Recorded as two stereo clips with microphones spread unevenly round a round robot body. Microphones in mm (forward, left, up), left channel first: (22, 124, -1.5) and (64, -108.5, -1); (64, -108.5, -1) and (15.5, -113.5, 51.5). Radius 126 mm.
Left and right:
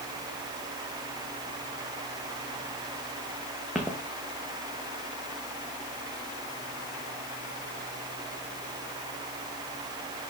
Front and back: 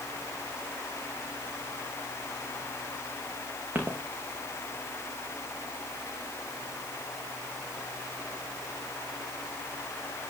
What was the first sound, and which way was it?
Footsteps, 165° right.